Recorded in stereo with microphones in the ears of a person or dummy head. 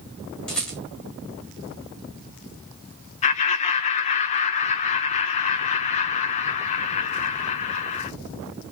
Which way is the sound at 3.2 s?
35° left (ahead or behind).